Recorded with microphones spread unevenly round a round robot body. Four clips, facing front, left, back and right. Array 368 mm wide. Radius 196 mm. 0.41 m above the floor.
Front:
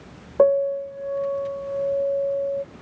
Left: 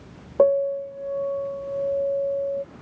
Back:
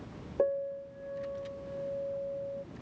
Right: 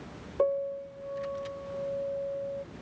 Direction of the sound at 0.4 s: 35° left.